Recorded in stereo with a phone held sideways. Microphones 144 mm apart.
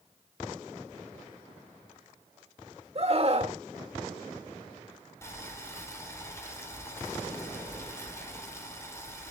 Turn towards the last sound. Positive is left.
turn(degrees=20)  # may be behind; listen again after turning